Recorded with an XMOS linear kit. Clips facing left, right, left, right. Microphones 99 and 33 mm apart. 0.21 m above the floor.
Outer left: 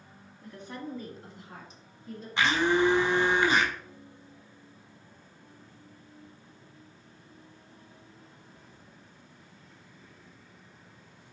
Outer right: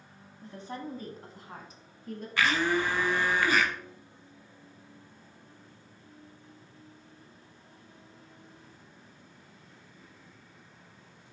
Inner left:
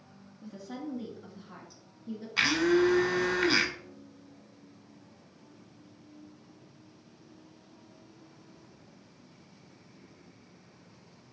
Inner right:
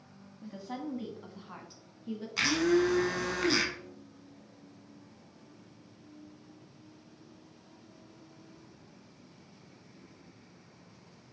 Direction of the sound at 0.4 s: 30° right (ahead or behind).